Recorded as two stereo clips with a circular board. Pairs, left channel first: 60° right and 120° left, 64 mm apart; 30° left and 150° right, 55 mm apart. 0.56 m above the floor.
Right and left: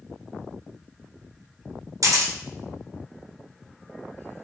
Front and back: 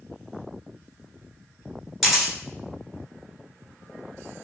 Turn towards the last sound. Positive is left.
turn(degrees=120)